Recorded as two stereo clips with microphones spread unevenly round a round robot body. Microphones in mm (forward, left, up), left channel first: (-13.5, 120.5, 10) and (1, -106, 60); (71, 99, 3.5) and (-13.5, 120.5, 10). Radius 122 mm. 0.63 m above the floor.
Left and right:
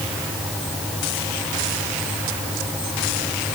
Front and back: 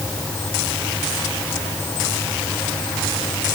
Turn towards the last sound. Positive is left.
No sound to turn to.